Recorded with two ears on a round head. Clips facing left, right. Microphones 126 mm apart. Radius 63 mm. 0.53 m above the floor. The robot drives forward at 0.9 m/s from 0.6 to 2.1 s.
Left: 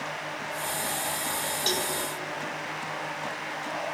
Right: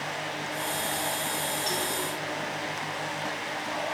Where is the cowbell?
40° left (ahead or behind), 2.5 m.